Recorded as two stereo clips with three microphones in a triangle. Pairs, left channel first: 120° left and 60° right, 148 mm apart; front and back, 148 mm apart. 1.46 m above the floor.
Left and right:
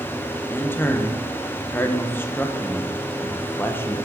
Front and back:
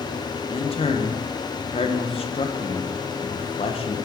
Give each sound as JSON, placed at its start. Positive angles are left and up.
{"t": 0.5, "sound": "a man speaking", "azimuth_deg": 45, "distance_m": 1.0}